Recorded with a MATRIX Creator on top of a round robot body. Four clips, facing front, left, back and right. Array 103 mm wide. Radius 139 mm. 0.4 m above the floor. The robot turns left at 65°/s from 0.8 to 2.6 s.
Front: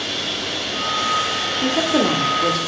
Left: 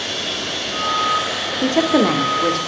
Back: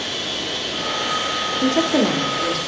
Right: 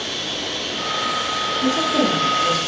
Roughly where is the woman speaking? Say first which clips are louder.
Left 5 dB, back 1 dB; behind left.